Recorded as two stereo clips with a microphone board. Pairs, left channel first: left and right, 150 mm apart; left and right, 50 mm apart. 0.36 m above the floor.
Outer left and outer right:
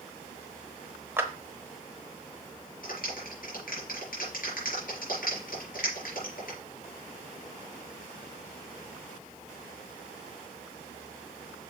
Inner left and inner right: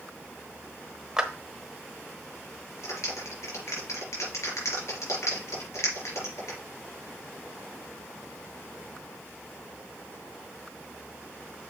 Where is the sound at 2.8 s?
70° left (ahead or behind), 4 m.